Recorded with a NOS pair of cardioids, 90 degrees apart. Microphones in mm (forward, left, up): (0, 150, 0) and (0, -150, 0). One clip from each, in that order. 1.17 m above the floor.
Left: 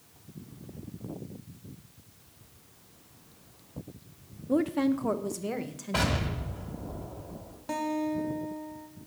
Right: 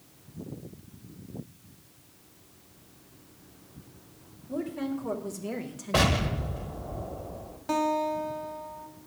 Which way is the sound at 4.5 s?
60° left.